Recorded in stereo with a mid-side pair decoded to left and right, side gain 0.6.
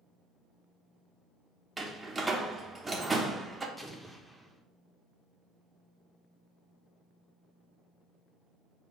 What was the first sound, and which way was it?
A door slam, 20° right.